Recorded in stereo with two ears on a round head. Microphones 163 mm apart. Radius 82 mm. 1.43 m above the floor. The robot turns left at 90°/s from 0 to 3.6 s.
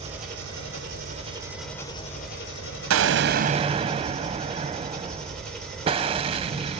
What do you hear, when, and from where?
0.0 s an engine running: 30° right, 4 m; by 6.8 s 5° left, 4 m
2.9 s an explosion: 85° right, 0.7 m; by 6.8 s 150° right, 0.7 m